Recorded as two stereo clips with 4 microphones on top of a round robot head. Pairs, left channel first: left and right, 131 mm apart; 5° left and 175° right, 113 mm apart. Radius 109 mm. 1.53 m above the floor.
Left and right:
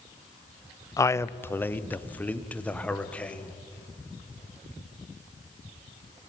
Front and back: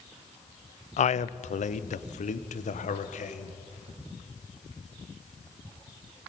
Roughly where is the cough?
I don't hear a cough.